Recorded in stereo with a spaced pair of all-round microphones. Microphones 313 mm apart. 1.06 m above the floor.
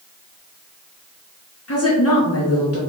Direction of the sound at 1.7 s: 50° left (ahead or behind).